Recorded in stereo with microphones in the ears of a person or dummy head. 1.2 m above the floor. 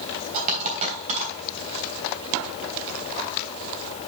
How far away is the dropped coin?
About 3 m.